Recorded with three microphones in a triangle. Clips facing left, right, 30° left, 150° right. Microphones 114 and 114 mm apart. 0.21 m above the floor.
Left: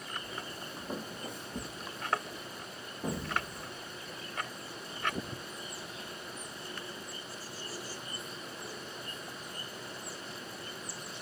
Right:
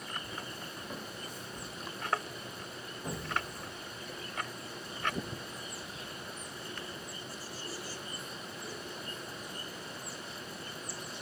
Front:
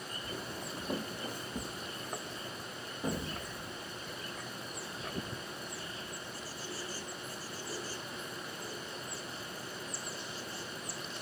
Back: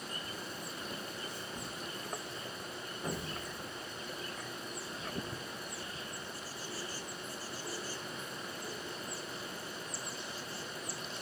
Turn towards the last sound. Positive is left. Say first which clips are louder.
# left 2 dB, front 3 dB
turn(degrees=100)